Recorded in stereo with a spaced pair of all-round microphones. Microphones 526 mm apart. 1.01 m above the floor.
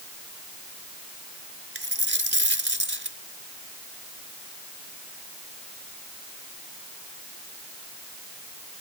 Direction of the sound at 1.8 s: 45° right (ahead or behind).